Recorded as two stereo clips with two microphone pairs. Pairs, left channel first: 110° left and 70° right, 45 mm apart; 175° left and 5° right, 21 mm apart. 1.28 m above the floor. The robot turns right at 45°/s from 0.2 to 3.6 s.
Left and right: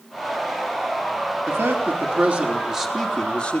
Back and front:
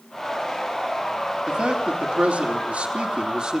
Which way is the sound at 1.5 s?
45° right.